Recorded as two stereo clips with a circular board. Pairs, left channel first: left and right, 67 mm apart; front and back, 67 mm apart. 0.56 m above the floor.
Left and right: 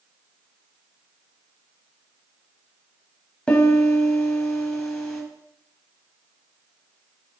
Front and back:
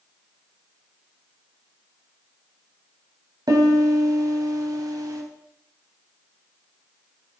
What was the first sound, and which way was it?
A piano, 165° left.